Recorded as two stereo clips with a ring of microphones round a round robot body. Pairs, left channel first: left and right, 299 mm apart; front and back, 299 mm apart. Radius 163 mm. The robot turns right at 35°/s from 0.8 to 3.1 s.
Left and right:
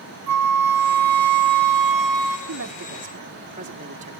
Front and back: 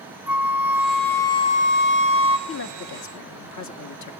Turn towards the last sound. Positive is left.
turn(degrees=-25)